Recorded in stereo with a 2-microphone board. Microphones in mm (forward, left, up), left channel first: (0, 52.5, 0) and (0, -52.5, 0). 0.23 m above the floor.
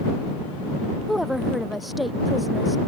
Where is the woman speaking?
Centre (ahead or behind).